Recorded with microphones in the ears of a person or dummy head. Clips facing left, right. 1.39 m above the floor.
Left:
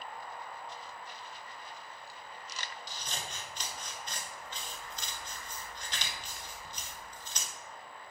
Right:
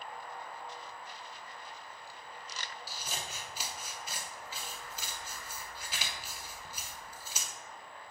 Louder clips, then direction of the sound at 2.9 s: Even; 5° right (ahead or behind).